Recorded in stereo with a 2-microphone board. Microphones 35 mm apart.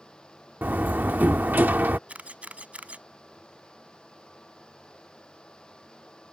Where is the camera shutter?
45° right (ahead or behind).